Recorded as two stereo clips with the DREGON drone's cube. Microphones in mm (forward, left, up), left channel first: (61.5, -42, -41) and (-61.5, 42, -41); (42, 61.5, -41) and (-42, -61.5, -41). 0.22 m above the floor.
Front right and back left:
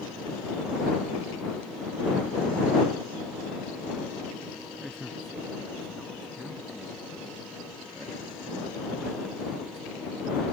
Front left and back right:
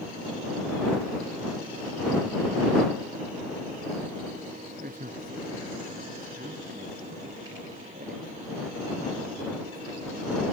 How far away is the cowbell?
I don't hear a cowbell.